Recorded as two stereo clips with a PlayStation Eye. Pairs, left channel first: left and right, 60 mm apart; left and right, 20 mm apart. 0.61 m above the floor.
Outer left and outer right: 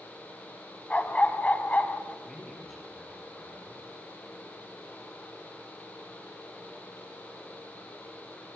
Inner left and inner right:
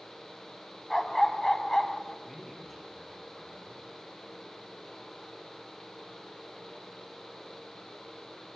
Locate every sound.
0.9 s a dog barking: 25° left (ahead or behind), 1.2 m
2.2 s a man speaking: 5° left (ahead or behind), 7.5 m